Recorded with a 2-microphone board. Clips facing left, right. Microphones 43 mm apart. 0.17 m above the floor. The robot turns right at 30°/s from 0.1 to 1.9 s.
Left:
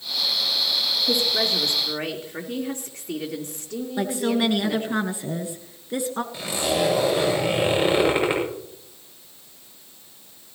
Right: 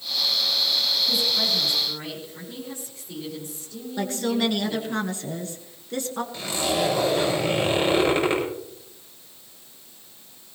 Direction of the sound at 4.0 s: 15° left (ahead or behind).